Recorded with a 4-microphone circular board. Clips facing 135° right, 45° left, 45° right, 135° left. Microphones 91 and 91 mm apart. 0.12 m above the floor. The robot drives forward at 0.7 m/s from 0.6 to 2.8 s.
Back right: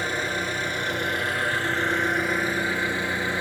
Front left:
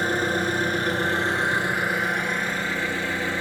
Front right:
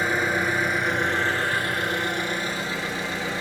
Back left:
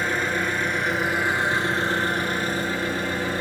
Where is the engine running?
35° left, 1.1 m; by 3.4 s 155° left, 1.3 m.